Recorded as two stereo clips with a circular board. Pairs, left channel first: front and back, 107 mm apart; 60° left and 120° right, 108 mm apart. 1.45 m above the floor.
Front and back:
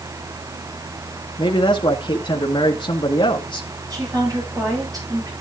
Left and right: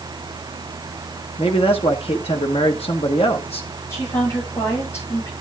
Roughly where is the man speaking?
Ahead left.